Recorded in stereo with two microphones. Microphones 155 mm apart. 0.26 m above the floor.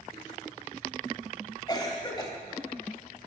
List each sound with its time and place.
1.7 s a cough: 25° left (ahead or behind), 1.1 m